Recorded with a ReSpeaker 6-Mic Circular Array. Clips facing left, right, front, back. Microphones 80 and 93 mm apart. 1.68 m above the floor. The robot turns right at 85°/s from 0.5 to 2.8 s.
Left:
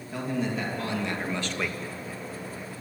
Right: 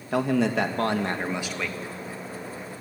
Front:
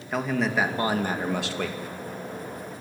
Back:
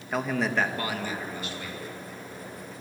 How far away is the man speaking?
About 2.5 m.